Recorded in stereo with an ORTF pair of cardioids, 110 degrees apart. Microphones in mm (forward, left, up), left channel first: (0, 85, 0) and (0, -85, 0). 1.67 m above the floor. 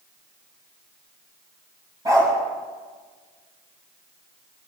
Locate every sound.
2.0 s a dog barking: 20° right, 9 m